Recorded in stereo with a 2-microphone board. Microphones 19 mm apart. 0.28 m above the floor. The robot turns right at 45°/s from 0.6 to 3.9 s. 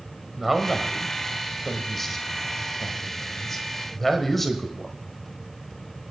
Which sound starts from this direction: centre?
A man speaking, at 0.4 s.